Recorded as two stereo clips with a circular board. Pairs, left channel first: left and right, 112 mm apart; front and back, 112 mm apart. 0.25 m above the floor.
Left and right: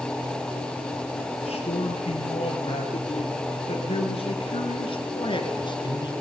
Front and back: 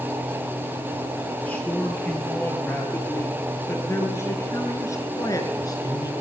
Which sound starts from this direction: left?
A man speaking, at 1.4 s.